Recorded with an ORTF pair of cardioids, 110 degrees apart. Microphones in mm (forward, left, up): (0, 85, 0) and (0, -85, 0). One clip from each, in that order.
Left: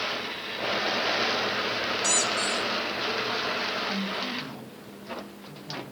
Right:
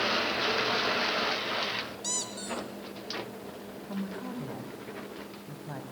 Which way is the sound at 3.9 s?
15° right.